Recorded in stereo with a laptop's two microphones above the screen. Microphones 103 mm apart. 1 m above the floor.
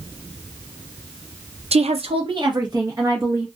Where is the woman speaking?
70° right (ahead or behind), 0.6 m; by 3.5 s 25° right (ahead or behind), 1.7 m.